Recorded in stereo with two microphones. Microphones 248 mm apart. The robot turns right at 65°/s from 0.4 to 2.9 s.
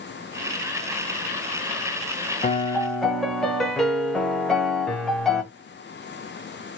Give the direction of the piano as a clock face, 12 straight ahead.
7 o'clock.